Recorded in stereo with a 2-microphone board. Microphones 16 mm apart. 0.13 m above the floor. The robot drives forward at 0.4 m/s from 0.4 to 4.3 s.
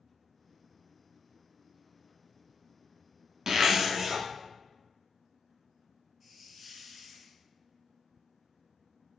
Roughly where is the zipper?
Right.